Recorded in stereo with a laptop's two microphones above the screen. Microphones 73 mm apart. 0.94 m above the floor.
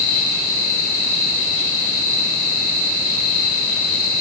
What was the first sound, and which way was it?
Only background noise.